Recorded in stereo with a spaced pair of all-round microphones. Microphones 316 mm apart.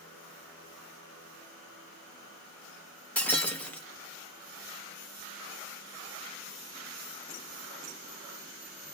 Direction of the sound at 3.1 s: 5° left (ahead or behind).